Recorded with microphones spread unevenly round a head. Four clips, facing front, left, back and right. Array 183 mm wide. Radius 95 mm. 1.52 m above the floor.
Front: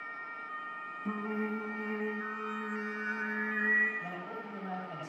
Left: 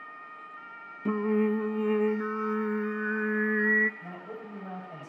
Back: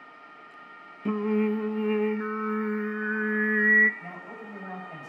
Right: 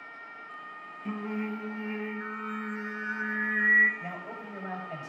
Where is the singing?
135° left, 0.6 m.